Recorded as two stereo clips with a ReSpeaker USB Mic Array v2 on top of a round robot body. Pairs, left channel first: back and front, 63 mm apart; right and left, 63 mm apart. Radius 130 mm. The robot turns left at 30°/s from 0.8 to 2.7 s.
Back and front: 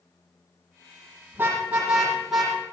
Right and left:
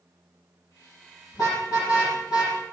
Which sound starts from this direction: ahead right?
A car horn, at 1.3 s.